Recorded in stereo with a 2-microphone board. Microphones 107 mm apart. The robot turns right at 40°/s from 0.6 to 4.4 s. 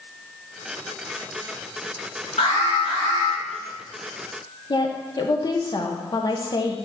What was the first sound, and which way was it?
An alarm, 85° left.